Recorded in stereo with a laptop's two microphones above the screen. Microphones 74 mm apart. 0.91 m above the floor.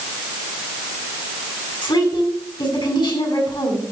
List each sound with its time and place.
1.8 s a woman speaking: 85° left, 7.5 m